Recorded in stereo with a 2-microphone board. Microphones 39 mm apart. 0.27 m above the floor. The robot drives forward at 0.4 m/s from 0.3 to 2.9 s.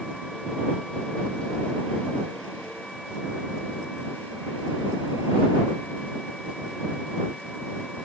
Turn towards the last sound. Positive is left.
No sound to turn to.